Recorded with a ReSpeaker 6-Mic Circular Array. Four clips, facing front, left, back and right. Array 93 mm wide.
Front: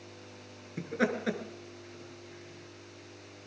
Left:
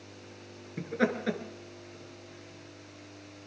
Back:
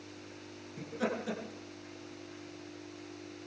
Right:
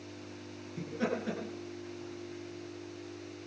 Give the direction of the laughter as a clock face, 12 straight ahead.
10 o'clock.